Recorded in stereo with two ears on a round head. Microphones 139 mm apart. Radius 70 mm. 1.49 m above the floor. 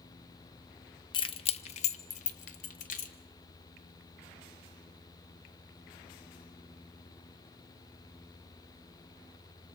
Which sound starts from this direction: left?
Keys jangling, at 1.1 s.